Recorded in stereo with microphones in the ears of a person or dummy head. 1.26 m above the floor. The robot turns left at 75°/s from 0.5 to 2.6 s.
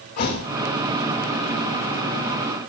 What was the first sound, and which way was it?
A thud, 55° left (ahead or behind).